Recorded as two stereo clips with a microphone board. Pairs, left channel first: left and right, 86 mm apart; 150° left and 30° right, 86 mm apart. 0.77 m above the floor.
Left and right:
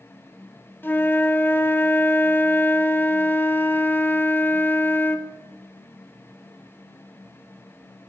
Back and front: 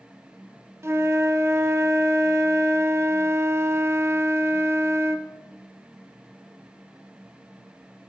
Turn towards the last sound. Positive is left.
turn(degrees=25)